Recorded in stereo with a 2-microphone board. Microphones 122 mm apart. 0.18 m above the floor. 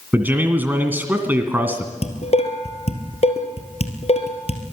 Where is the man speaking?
15° right (ahead or behind), 1.8 m.